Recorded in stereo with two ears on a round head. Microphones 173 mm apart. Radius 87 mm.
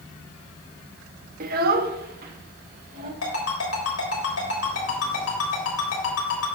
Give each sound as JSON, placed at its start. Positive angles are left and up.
{"t": 1.4, "sound": "a child speaking", "side_deg": -45, "distance_m": 0.8}
{"t": 3.2, "sound": "a ringtone", "side_deg": 85, "distance_m": 3.5}